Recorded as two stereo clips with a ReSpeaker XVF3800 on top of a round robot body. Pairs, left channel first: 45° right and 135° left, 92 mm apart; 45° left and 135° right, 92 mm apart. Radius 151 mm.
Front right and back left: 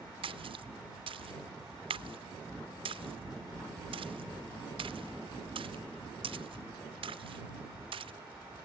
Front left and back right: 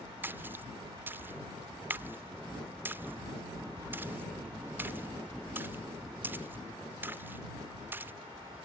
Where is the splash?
155° left.